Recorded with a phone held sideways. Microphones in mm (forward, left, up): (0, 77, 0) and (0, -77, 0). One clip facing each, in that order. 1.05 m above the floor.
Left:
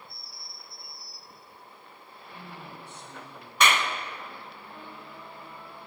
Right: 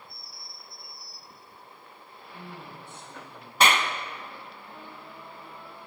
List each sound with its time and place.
2.3 s a woman speaking: 75° left (ahead or behind), 7 m
3.6 s a clap: 35° right (ahead or behind), 1.1 m